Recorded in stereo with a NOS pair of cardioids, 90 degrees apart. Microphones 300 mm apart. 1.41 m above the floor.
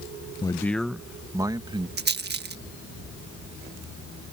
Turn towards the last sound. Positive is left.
turn(degrees=-30)